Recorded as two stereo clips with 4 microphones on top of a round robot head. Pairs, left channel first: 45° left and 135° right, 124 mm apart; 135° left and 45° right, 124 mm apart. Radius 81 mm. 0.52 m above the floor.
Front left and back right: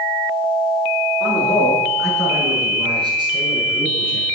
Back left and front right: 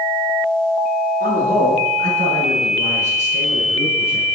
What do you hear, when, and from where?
1.2 s a man speaking: 55° right, 6.5 m; by 4.2 s 90° right, 5.5 m